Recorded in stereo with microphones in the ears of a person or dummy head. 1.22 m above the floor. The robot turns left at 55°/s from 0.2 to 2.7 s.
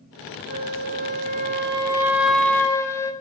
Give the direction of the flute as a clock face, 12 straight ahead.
3 o'clock.